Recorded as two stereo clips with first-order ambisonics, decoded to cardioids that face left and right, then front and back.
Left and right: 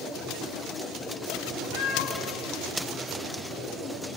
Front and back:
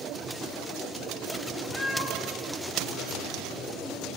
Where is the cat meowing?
100° left, 0.7 m.